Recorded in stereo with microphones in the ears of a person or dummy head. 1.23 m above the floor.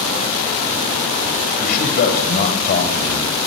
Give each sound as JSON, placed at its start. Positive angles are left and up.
{"t": 1.6, "sound": "a man speaking", "side_deg": 55, "distance_m": 5.0}